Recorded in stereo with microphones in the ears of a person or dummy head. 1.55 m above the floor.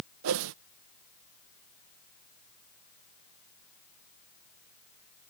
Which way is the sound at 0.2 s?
80° right.